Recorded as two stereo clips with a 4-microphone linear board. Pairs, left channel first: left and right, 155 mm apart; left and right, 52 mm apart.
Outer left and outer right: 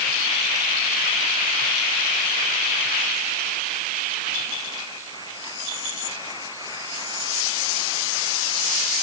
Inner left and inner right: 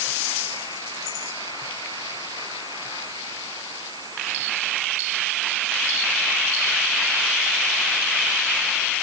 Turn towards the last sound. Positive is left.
No sound to turn to.